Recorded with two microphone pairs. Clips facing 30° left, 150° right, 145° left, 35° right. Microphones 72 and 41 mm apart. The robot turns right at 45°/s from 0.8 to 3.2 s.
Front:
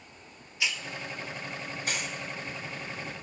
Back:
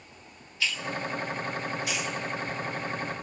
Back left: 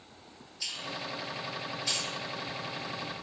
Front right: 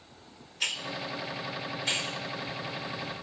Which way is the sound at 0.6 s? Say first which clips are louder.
Back 3 dB, front right 5 dB; 45° right.